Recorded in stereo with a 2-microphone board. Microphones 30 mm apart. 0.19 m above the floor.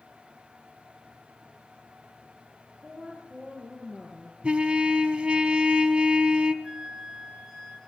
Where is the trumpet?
40° right (ahead or behind), 0.8 m.